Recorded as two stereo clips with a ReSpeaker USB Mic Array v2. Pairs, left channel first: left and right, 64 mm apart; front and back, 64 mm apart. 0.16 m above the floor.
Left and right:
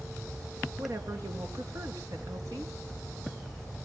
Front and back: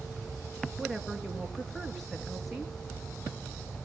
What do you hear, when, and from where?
0.8 s a woman speaking: 85° right, 3 m